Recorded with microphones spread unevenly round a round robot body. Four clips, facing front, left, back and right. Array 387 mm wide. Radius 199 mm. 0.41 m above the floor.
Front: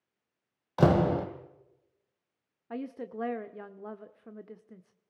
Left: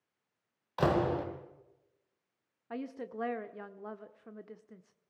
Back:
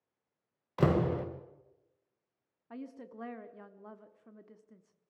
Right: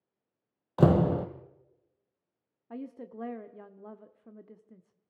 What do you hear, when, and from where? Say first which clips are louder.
0.8 s a door slam: right 5 dB, front 5 dB; 65° right, 1.7 m
2.7 s a woman speaking: left 1 dB, front 8 dB; 5° left, 1.1 m